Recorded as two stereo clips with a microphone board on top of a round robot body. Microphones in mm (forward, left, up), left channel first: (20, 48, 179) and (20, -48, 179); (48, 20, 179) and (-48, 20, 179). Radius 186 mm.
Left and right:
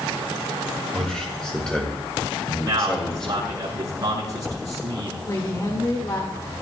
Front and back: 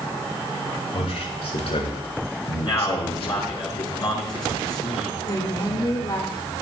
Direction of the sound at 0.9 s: 5° left.